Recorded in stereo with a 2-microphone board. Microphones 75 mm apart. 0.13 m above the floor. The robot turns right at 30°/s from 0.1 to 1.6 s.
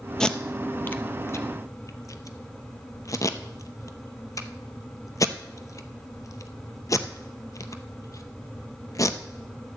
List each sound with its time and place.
0.2 s tape being pulled: 5° left (ahead or behind), 0.7 m; by 9.2 s 45° left (ahead or behind), 0.7 m